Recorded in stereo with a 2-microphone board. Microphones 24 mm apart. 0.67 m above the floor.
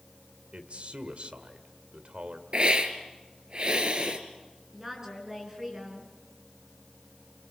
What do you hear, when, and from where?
0.5 s a man speaking: 60° right (ahead or behind), 2 m
2.5 s a hiss: 45° right (ahead or behind), 2.5 m
4.7 s a woman speaking: 20° right (ahead or behind), 7.5 m